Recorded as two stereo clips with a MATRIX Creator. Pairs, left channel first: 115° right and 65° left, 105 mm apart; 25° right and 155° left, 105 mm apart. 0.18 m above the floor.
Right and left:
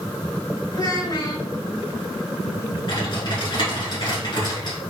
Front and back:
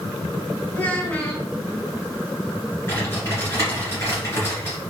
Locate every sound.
0.7 s a child speaking: 85° right, 1.4 m
2.9 s typing on a keyboard: 85° right, 2.5 m